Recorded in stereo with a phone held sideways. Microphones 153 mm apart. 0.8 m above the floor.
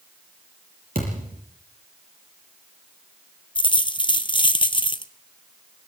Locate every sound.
0.9 s a thud: 75° right (ahead or behind), 7.5 m
3.5 s a dropped coin: 35° left (ahead or behind), 1.0 m